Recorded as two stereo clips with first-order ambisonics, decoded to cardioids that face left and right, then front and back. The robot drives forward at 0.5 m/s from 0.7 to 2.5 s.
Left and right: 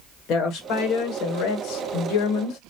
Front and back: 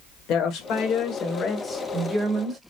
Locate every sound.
0.3 s a woman speaking: 45° left, 1.0 m; by 2.6 s 110° left, 0.8 m